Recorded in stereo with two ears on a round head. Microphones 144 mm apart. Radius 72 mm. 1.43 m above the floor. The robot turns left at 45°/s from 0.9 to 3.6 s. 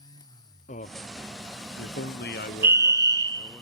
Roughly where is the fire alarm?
Ahead right.